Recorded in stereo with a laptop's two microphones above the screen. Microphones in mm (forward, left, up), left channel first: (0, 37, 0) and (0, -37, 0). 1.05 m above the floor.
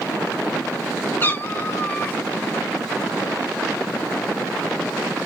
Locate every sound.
1.2 s a cat meowing: 25° left (ahead or behind), 0.8 m